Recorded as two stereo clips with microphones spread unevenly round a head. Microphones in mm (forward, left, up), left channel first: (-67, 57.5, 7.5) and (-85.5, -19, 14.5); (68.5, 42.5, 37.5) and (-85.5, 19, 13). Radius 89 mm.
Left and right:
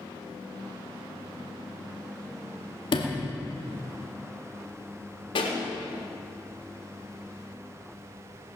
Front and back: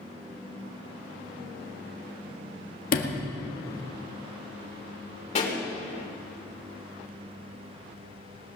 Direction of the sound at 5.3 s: 55° left.